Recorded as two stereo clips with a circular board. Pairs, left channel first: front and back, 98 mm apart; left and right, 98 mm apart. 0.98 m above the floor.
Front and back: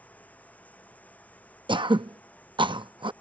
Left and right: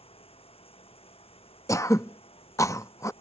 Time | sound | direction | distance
0.0 | running water | 75° left | ?
1.7 | throat clearing | 145° left | ?